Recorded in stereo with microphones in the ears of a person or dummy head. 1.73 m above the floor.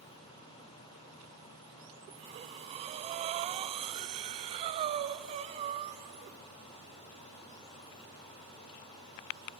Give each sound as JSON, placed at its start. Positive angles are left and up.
{"t": 2.1, "sound": "breathing", "side_deg": -35, "distance_m": 0.9}